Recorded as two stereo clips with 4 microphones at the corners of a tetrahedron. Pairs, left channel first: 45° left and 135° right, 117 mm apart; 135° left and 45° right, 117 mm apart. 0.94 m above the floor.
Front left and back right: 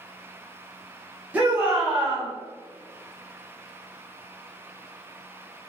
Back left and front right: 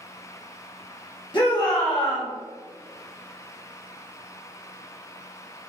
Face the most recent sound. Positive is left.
turn(degrees=150)